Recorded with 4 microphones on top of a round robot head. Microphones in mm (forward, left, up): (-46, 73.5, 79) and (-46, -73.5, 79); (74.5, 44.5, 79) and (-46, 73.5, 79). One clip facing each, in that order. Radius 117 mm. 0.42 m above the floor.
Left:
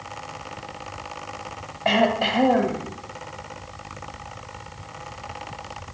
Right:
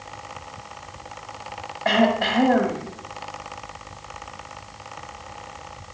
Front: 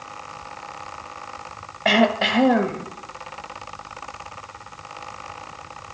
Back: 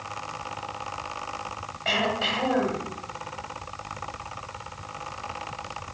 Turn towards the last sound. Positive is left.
turn(degrees=10)